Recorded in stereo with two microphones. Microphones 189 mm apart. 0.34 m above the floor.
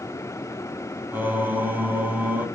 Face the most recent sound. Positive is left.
turn(degrees=-10)  # may be behind; listen again after turning